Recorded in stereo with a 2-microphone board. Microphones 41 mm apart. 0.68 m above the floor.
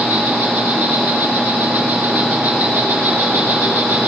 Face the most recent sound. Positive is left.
turn(degrees=-75)  # may be behind; listen again after turning